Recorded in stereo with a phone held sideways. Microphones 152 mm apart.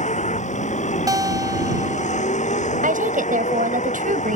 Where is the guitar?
25° right (ahead or behind).